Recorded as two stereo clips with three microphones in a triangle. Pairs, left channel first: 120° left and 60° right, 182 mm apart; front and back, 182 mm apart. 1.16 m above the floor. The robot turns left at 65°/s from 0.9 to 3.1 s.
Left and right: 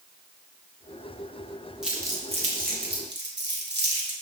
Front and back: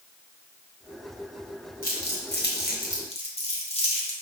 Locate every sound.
1.8 s crumpling: 30° left, 0.9 m; by 4.1 s 55° right, 0.9 m